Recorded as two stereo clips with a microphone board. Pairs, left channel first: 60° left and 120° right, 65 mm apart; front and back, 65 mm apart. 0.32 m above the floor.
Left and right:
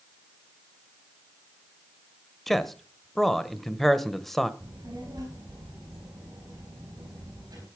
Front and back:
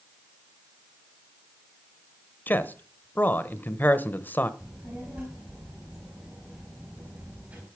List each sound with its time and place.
2.5 s a man speaking: 25° right, 1.1 m
4.6 s a child speaking: 115° right, 3.5 m